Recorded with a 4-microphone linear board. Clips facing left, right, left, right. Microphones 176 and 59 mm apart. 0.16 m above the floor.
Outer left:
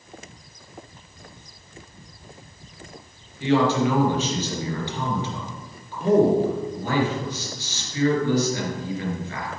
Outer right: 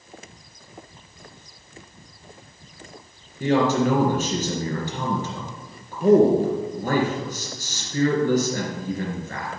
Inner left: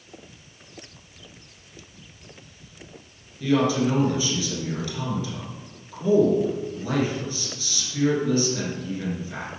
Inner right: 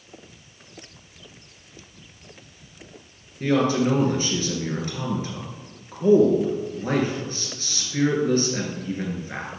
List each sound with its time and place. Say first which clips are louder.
3.4 s a man speaking: even, inner right 1 dB; 45° right (ahead or behind), 2.5 m